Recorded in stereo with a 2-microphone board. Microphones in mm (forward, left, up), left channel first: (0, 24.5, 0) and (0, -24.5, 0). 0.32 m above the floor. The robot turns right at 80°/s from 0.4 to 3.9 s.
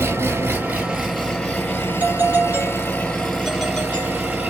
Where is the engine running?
55° right, 1.8 m; by 4.5 s 135° right, 1.8 m.